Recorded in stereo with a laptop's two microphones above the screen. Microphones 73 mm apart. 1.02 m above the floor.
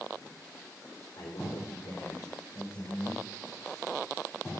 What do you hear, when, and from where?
1.2 s a man speaking: 60° left (ahead or behind), 2.5 m; by 3.2 s 70° left (ahead or behind), 4.5 m